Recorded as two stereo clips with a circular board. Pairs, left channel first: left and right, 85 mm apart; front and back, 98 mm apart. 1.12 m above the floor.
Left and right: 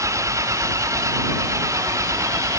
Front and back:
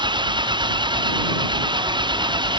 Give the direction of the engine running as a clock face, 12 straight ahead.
5 o'clock.